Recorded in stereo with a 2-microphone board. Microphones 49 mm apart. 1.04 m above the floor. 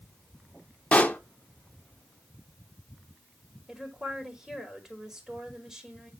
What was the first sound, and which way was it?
A pop, 25° left (ahead or behind).